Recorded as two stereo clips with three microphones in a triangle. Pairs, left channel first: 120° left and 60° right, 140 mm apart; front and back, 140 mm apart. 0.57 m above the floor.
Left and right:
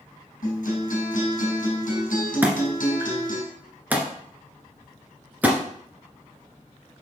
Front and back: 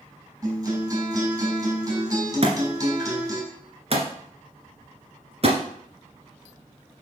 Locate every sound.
0.4 s a guitar: 115° left, 4 m
2.4 s a thud: 140° right, 1.6 m